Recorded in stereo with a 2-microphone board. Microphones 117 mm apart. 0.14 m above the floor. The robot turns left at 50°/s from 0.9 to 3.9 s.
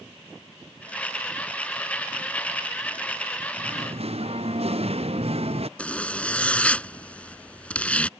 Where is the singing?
75° right (ahead or behind); by 5.7 s 60° right (ahead or behind).